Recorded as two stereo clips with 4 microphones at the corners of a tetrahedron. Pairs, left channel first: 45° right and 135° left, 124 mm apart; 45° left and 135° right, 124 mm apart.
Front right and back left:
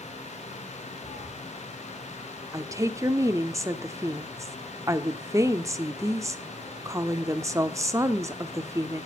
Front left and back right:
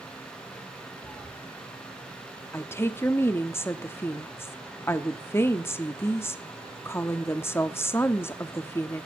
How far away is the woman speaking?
About 0.9 m.